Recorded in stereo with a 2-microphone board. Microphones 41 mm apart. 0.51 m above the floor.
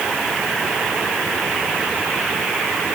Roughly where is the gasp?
No gasp in this recording.